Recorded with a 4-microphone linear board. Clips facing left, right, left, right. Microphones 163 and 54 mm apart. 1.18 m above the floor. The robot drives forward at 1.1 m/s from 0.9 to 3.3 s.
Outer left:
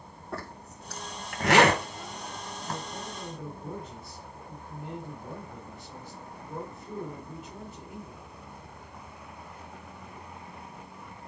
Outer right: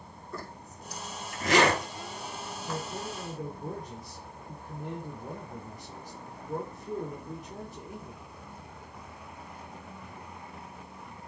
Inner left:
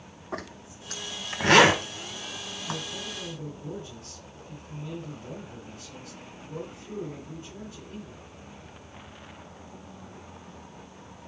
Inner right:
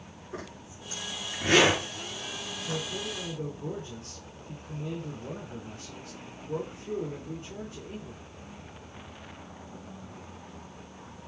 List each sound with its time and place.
0.3 s a zipper: 70° left (ahead or behind), 2.5 m; by 2.8 s 40° left (ahead or behind), 3.5 m
2.6 s a man speaking: 35° right (ahead or behind), 5 m; by 8.2 s 40° right (ahead or behind), 4.5 m